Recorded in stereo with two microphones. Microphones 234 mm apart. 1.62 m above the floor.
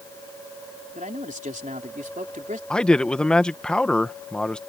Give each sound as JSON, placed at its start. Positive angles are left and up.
{"t": 0.9, "sound": "a man speaking", "side_deg": -30}
{"t": 2.7, "sound": "a man speaking", "side_deg": 5}